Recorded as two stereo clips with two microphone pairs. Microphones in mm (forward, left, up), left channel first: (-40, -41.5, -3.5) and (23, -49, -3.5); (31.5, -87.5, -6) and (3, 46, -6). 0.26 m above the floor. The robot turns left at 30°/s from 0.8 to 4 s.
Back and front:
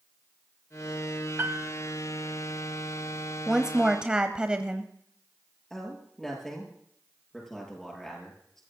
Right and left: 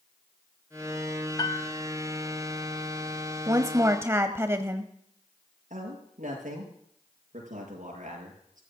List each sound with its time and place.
1.4 s a piano: 35° right, 0.9 m; by 1.7 s 45° right, 0.9 m
3.5 s a woman speaking: 70° left, 1.0 m; by 4.9 s 50° left, 1.0 m
5.7 s a man speaking: 90° left, 7 m